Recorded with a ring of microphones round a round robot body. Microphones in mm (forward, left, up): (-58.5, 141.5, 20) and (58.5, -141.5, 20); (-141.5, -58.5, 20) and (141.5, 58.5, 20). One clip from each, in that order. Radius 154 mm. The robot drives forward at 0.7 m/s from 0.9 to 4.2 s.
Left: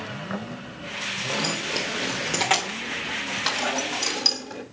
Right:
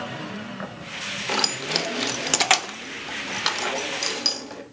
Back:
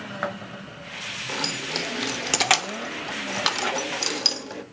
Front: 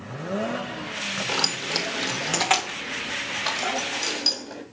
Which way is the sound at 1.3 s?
45° right.